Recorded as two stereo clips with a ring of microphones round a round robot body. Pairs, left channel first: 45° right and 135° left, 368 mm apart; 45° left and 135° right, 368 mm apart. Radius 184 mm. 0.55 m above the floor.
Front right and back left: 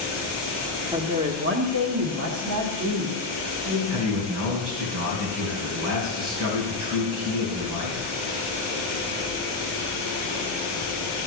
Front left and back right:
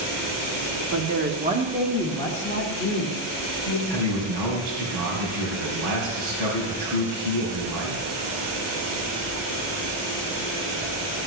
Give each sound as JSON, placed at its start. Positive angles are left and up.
{"t": 0.9, "sound": "a woman speaking", "azimuth_deg": -145, "distance_m": 1.4}
{"t": 3.9, "sound": "a man speaking", "azimuth_deg": -175, "distance_m": 4.0}